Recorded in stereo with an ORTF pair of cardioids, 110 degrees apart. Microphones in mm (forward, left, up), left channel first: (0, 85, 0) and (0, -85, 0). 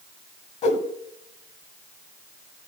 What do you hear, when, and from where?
0.6 s a whoosh: 40° left, 1.2 m